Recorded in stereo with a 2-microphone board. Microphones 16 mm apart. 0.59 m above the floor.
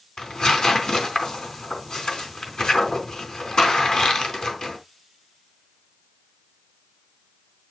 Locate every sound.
0.2 s tearing paper: 60° left (ahead or behind), 4 m